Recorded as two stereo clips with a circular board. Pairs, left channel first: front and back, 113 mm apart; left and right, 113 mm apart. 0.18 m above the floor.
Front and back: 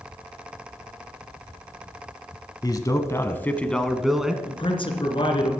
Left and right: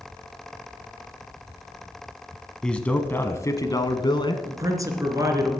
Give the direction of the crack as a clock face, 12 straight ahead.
I don't hear a crack.